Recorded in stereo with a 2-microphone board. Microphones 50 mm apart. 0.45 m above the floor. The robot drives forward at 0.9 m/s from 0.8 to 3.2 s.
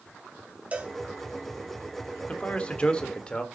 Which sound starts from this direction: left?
A man speaking, at 2.3 s.